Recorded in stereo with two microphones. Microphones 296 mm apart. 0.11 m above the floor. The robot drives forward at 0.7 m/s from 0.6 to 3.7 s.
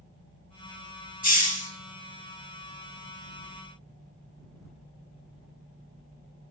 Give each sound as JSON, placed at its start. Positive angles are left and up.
{"t": 1.2, "sound": "a hiss", "side_deg": 60, "distance_m": 1.1}